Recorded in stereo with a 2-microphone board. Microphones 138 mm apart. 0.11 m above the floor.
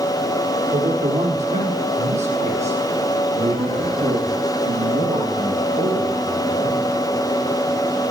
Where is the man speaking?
70° right (ahead or behind), 4.5 m; by 7.0 s 55° right (ahead or behind), 8 m.